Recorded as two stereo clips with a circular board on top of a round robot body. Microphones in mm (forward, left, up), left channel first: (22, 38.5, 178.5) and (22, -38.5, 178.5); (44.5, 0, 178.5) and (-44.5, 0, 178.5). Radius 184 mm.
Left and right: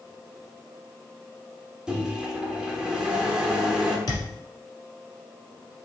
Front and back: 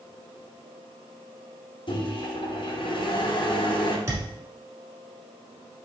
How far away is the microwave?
About 1.3 m.